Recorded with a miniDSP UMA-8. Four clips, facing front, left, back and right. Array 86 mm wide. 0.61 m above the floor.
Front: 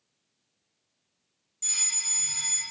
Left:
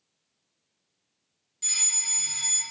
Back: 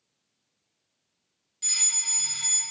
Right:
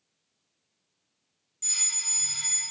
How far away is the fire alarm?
About 1.9 m.